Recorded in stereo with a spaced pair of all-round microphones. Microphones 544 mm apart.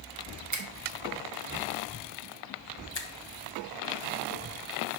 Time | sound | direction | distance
0.5 | a finger snap | 30° right (ahead or behind) | 1.0 m
3.0 | a finger snap | 50° left (ahead or behind) | 0.8 m